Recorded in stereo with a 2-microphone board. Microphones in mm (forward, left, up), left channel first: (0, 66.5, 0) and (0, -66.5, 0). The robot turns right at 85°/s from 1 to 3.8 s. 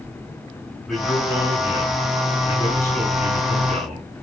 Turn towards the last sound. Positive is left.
turn(degrees=-120)